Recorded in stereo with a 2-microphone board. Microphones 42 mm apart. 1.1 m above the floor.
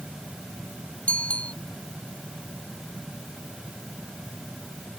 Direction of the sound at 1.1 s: 35° left (ahead or behind).